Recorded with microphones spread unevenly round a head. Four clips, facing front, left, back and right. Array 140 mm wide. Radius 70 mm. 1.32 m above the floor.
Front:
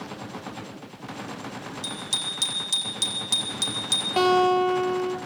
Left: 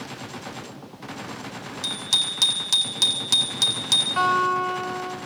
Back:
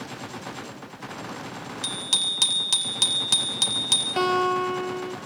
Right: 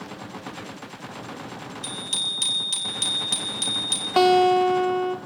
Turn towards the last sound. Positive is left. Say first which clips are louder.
# right 5 dB, front 3 dB
turn(degrees=-75)